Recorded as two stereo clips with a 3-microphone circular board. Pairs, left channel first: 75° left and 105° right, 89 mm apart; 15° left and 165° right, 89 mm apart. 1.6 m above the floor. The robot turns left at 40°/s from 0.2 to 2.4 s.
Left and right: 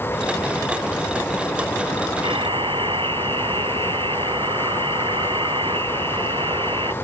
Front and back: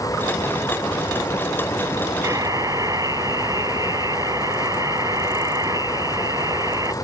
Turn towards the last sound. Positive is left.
turn(degrees=-120)